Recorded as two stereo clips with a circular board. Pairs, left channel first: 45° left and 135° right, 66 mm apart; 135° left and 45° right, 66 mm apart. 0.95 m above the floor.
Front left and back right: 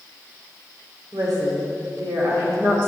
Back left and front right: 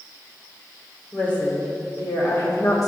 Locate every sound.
1.1 s a woman speaking: 155° right, 2.5 m; by 2.9 s 170° left, 2.5 m